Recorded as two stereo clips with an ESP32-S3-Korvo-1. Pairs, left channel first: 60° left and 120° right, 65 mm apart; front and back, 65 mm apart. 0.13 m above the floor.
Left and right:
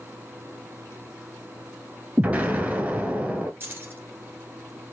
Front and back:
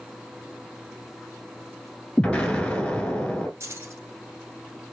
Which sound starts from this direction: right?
An explosion, at 2.2 s.